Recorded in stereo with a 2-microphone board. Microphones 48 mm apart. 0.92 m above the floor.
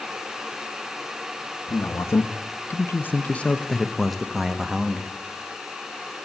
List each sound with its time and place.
1.7 s a man speaking: 60° left (ahead or behind), 1.1 m; by 5.1 s 15° right (ahead or behind), 1.3 m